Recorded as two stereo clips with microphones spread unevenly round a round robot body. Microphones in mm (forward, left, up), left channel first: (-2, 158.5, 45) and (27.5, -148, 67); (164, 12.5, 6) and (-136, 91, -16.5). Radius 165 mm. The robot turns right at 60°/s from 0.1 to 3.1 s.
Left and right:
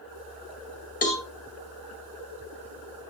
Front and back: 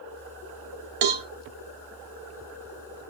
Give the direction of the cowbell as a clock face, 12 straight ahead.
7 o'clock.